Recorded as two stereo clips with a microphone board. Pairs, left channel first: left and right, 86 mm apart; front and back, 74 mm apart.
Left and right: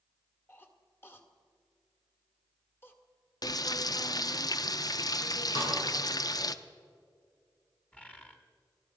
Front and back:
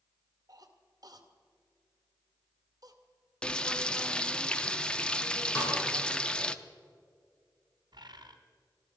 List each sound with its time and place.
0.5 s a cough: 155° left, 1.8 m
3.4 s frying: 75° left, 0.6 m
5.5 s a snare drum: 65° left, 8 m
7.9 s a bird: 165° left, 1.5 m